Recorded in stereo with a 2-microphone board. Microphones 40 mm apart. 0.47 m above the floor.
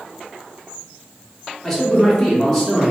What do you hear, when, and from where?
1.6 s a man speaking: 10° left (ahead or behind), 0.8 m; by 2.9 s centre (ahead or behind), 0.8 m